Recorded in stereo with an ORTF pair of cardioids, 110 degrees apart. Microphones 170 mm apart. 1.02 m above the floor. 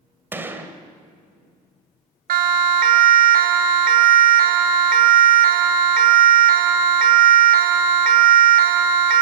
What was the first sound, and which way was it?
A gunshot, 10° right.